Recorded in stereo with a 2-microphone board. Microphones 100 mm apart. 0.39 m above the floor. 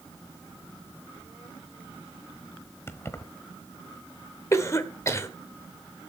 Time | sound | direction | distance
2.9 | keys jangling | 25° left (ahead or behind) | 1.1 m
4.5 | a cough | 30° left (ahead or behind) | 1.5 m